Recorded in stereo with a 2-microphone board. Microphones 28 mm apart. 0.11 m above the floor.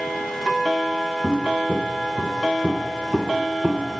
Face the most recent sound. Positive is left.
turn(degrees=-25)  # may be behind; listen again after turning